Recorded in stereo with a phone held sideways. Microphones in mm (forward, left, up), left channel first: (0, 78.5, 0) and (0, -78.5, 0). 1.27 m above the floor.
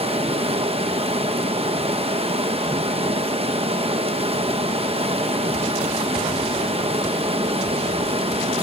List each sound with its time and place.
0.0 s running water: 40° right (ahead or behind), 1.1 m